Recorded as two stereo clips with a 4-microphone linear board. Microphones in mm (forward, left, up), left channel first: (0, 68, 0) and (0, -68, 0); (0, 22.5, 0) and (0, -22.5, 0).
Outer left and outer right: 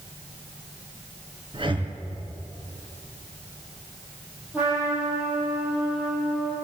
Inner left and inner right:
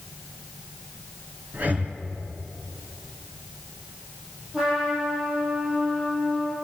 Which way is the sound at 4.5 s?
10° right (ahead or behind).